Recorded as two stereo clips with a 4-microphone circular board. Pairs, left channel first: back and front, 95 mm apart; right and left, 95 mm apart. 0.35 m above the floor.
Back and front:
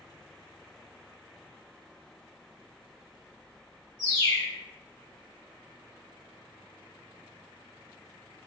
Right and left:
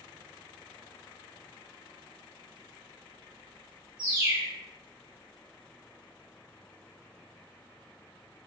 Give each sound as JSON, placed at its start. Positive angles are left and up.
{"t": 4.0, "sound": "a bird", "azimuth_deg": 155, "distance_m": 1.6}